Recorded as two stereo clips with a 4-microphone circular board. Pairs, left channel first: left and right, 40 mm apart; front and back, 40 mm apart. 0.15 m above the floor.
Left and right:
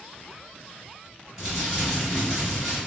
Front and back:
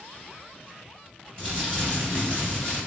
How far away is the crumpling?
About 1.4 m.